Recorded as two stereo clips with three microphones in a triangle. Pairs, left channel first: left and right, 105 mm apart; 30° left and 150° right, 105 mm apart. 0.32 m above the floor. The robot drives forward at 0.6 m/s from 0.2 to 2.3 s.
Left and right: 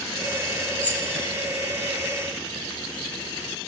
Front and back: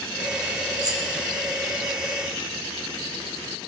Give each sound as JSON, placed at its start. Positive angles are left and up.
{"t": 0.8, "sound": "keys jangling", "azimuth_deg": 160, "distance_m": 1.6}